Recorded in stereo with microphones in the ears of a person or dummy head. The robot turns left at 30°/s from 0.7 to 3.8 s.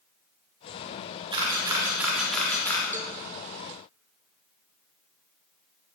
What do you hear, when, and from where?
1.3 s a camera shutter: 30° right (ahead or behind), 3.5 m; by 2.8 s 15° left (ahead or behind), 3.5 m
2.9 s a cowbell: 10° right (ahead or behind), 1.7 m; by 3.1 s 20° right (ahead or behind), 1.7 m